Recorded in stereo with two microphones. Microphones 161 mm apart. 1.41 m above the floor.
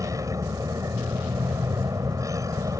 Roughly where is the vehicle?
Centre.